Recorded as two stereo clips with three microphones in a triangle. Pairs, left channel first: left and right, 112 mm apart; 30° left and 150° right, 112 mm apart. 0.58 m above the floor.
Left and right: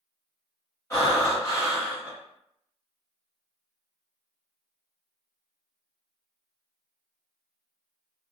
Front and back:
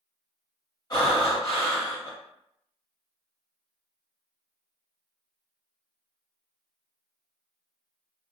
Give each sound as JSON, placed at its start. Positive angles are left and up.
{"t": 0.9, "sound": "breathing", "azimuth_deg": 45, "distance_m": 1.2}